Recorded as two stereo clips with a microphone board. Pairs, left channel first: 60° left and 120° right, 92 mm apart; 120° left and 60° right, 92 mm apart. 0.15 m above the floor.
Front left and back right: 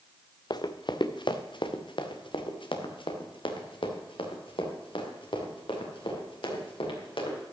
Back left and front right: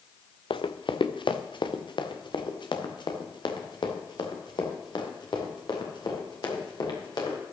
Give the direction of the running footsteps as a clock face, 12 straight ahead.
9 o'clock.